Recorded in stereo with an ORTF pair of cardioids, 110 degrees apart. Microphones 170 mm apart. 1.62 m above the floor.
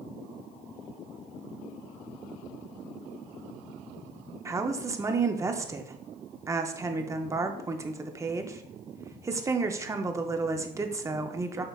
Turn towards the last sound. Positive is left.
turn(degrees=-15)